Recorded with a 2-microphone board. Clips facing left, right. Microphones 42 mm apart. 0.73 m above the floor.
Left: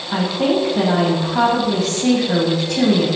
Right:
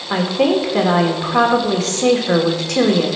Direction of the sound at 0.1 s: 70° right (ahead or behind).